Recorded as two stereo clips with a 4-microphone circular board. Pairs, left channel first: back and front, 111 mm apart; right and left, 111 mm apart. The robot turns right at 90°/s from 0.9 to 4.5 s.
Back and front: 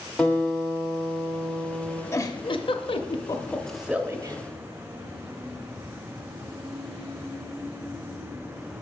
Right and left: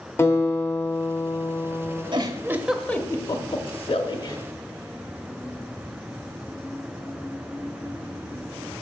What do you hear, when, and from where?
0.2 s a guitar: 115° right, 1.5 m; by 2.0 s 10° right, 1.5 m
2.1 s a giggle: 120° left, 0.6 m; by 4.4 s 35° right, 0.6 m